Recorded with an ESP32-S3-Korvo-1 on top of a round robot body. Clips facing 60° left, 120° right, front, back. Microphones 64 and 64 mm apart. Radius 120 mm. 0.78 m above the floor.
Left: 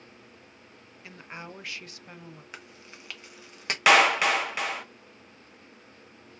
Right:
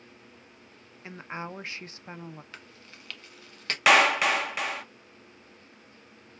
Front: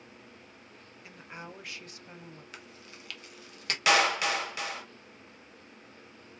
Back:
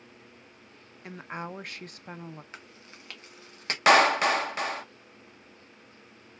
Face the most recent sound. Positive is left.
turn(degrees=150)